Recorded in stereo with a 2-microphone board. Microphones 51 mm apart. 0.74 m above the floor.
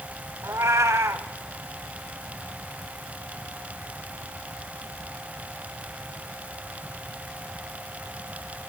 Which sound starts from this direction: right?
A cat meowing, at 0.4 s.